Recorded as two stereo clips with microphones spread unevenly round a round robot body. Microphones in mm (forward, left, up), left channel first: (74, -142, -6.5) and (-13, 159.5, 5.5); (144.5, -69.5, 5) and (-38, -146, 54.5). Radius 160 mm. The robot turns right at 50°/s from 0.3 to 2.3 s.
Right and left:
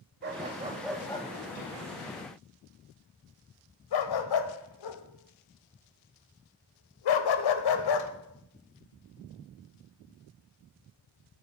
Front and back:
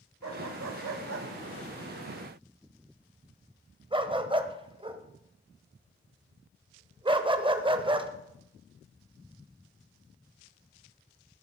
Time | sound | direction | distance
0.2 | a dog barking | 165° left | 1.1 m